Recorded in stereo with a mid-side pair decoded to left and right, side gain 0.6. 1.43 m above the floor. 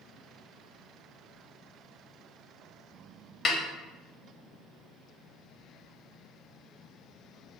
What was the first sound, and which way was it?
A snare drum, 40° left.